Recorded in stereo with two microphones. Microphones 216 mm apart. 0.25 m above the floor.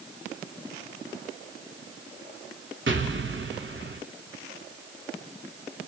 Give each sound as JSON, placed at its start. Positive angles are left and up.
{"t": 2.9, "sound": "an explosion", "side_deg": -60, "distance_m": 0.9}